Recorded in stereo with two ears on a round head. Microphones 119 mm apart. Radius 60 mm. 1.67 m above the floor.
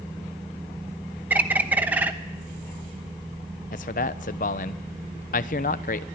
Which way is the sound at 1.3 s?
15° right (ahead or behind).